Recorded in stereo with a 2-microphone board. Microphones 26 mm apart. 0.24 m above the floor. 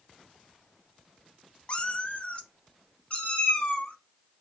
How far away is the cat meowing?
About 0.5 m.